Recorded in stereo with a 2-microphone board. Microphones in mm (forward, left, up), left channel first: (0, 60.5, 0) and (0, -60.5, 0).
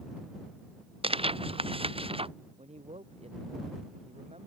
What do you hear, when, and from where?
1.0 s tearing paper: 50° right (ahead or behind)
2.6 s a man speaking: 60° right (ahead or behind)